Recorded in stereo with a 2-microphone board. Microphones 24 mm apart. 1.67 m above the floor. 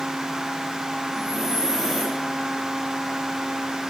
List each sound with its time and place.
1.1 s breathing: 10° right (ahead or behind), 9 m